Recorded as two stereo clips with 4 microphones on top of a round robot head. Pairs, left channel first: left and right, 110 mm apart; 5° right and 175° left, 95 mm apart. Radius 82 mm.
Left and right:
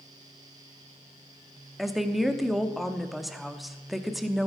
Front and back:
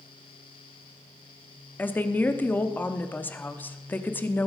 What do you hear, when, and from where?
1.8 s a woman speaking: 5° right, 0.9 m